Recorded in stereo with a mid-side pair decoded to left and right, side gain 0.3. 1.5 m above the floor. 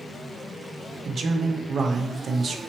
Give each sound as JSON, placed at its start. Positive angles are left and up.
{"t": 1.1, "sound": "a man speaking", "azimuth_deg": -60, "distance_m": 0.8}